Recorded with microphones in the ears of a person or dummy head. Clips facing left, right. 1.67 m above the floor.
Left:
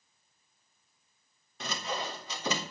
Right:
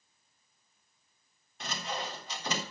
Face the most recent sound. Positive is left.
turn(degrees=60)  # may be behind; listen again after turning